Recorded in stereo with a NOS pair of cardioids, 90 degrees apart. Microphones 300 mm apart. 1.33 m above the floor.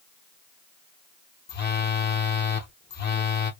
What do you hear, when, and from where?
1.5 s a phone buzzing: 35° left, 0.8 m